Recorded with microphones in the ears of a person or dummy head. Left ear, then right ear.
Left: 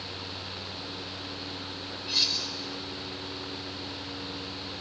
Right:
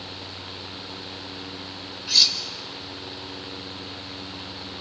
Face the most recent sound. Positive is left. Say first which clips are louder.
# right 8 dB
turn(degrees=-40)  # may be behind; listen again after turning